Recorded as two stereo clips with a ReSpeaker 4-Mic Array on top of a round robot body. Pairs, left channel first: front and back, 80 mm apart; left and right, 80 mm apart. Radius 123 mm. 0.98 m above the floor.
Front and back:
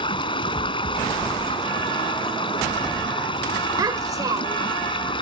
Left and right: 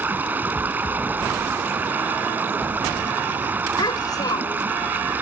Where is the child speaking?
135° left.